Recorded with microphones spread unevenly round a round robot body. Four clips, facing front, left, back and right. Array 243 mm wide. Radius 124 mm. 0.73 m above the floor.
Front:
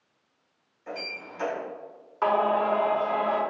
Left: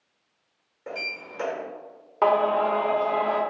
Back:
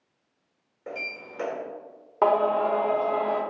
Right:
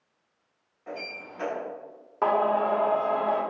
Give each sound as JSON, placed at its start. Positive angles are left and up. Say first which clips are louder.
{"t": 0.9, "sound": "a sliding door", "louder": "left 2 dB, even", "azimuth_deg": 145, "distance_m": 1.8}
{"t": 2.2, "sound": "singing", "louder": "left 2 dB, back 2 dB", "azimuth_deg": 170, "distance_m": 1.0}